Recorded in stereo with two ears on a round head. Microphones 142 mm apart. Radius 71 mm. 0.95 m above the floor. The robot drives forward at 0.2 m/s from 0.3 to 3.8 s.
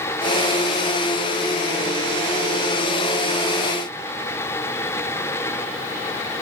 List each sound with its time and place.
Only background noise.